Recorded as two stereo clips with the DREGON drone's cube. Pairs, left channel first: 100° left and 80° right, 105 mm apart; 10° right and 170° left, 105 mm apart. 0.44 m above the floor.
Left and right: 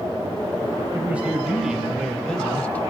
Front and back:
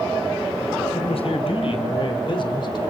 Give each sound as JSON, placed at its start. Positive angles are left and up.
{"t": 0.9, "sound": "a man speaking", "azimuth_deg": -5, "distance_m": 2.5}